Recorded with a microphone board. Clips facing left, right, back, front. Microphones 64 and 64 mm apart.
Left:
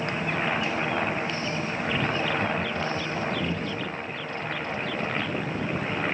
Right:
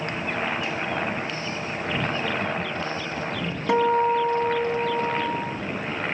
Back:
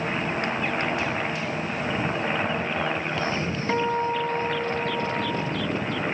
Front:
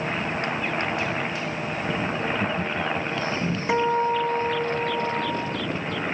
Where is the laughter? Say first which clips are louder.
Even, even; 25° right; by 3.6 s 30° right.